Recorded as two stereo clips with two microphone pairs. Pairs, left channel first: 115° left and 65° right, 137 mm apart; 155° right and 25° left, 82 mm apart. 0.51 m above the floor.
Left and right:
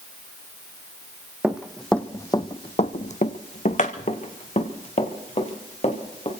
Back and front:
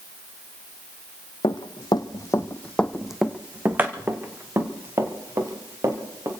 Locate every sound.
1.4 s running footsteps: 145° right, 1.2 m; by 6.3 s 75° left, 3.5 m